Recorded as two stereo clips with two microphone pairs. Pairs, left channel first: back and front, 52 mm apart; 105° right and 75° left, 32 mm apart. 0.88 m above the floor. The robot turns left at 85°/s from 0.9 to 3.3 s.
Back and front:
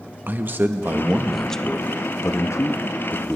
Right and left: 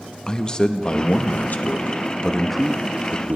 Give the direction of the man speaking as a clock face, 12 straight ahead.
2 o'clock.